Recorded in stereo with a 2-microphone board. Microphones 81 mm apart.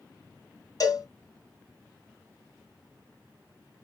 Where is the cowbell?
50° left (ahead or behind), 1.6 m.